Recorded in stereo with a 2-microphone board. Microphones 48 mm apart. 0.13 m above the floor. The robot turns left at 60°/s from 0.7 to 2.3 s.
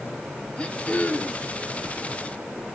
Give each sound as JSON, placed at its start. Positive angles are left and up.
{"t": 0.6, "sound": "throat clearing", "azimuth_deg": 130, "distance_m": 1.0}